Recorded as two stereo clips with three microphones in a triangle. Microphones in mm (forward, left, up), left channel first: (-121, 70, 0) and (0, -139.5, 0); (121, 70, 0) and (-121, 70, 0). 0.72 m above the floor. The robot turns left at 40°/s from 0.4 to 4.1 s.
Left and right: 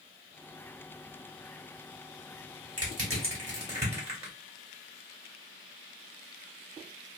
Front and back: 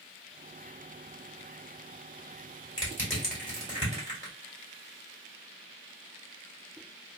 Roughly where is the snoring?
I don't hear snoring.